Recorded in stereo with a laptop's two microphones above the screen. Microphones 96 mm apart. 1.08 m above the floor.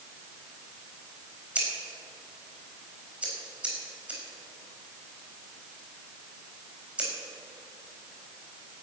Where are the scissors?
15° right (ahead or behind), 4.5 m.